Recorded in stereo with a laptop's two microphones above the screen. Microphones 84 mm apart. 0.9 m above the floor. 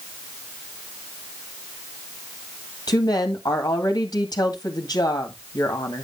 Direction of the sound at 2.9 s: 50° left (ahead or behind).